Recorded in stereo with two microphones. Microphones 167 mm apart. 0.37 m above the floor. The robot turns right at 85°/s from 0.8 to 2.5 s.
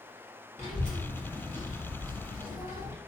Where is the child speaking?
50° left (ahead or behind), 1.4 m; by 3.0 s 25° right (ahead or behind), 1.4 m.